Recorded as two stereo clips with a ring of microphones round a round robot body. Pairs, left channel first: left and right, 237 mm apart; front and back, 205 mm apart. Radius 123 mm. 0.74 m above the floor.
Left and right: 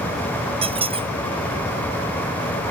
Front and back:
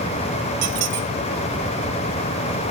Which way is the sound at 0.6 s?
160° right.